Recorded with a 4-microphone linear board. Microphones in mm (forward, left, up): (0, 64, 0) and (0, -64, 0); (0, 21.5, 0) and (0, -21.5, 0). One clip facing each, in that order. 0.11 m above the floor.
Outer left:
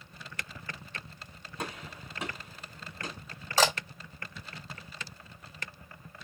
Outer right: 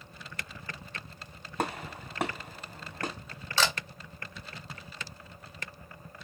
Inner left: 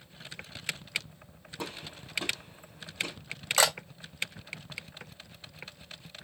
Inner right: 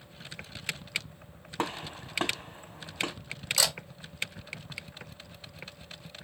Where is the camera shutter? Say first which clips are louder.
Outer left 4 dB, inner left 5 dB; 45° left (ahead or behind), 1.5 m.